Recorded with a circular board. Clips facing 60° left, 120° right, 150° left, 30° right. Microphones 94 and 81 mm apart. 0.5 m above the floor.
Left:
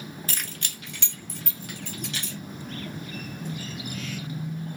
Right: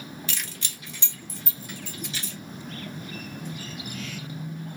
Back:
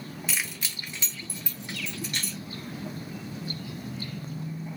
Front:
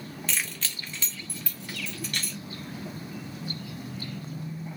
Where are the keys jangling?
70° left, 0.6 m; by 2.4 s 80° left, 2 m.